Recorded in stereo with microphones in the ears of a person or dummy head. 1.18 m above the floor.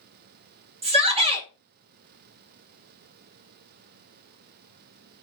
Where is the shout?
30° right (ahead or behind), 1.0 m.